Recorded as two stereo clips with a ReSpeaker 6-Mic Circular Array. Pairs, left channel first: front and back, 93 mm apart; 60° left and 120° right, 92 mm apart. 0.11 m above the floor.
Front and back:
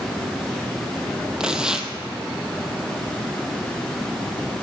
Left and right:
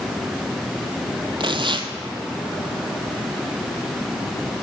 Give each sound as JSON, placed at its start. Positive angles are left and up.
{"t": 1.4, "sound": "tearing paper", "azimuth_deg": -100, "distance_m": 1.0}